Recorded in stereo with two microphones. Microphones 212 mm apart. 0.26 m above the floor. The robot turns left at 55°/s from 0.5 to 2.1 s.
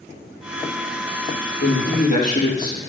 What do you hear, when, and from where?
1.6 s a man speaking: 65° left (ahead or behind), 5.5 m; by 2.8 s 40° left (ahead or behind), 5.5 m